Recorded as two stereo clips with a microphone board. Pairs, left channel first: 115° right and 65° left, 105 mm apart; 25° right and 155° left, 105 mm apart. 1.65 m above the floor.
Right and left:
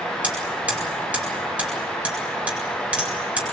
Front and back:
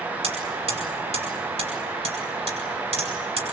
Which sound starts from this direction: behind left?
Hammering, at 0.2 s.